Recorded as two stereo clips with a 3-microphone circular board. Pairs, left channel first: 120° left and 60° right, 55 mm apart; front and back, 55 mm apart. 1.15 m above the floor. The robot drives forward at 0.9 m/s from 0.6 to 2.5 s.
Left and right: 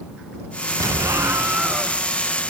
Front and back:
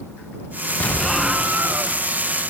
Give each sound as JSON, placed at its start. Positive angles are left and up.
{"t": 0.8, "sound": "an explosion", "azimuth_deg": -60, "distance_m": 0.7}